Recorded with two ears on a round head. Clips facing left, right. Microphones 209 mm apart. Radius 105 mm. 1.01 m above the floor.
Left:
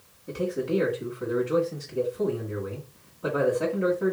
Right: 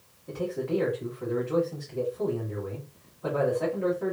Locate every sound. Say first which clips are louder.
0.3 s a man speaking: left 2 dB; 40° left (ahead or behind), 1.5 m